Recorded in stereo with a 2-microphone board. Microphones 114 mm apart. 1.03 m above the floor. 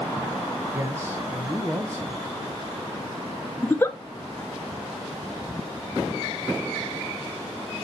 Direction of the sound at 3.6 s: 20° left (ahead or behind).